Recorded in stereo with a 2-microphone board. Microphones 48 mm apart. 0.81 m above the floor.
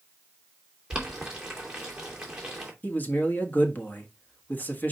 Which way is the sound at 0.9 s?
15° right (ahead or behind).